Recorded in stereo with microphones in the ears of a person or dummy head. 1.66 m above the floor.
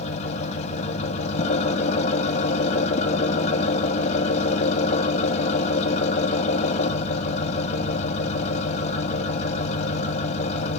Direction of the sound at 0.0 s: 35° left (ahead or behind).